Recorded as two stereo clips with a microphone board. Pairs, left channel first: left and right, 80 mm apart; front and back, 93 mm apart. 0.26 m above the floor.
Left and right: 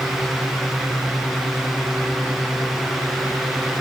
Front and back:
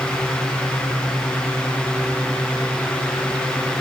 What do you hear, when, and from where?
Only background noise.